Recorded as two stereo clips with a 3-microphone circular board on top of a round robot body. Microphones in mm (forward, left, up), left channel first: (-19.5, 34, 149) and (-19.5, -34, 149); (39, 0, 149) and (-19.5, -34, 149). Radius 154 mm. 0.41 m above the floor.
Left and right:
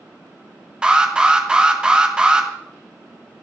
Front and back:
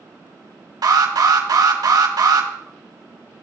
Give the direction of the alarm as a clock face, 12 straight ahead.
6 o'clock.